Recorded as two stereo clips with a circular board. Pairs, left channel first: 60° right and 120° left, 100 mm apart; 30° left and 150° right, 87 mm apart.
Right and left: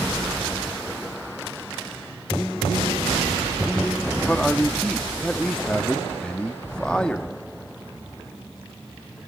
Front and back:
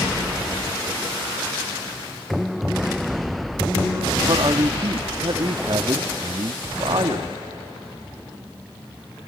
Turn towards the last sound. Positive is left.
turn(degrees=-140)